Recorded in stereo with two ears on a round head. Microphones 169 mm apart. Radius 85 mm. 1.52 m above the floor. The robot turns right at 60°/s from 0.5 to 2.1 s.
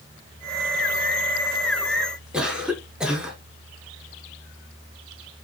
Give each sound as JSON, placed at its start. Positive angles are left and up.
{"t": 2.3, "sound": "a cough", "side_deg": -5, "distance_m": 1.2}